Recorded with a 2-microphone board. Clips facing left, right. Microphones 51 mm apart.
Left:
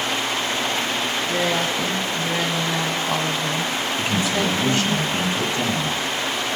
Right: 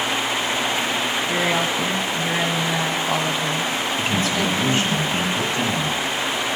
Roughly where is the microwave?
No microwave in this recording.